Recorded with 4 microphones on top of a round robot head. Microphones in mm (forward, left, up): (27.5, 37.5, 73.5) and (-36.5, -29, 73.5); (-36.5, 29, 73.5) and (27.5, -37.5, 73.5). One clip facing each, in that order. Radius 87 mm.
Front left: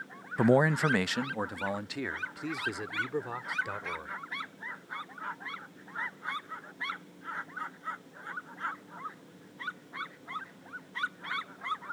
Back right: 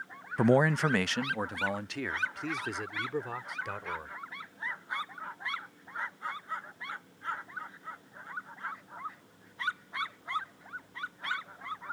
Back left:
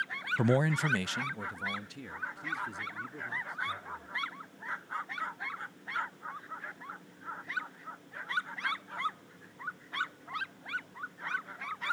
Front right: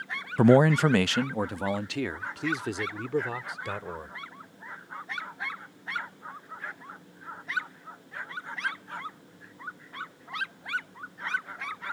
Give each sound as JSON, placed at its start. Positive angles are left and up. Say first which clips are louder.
{"t": 0.4, "sound": "a man speaking", "louder": "even, front right 10 dB", "azimuth_deg": -40}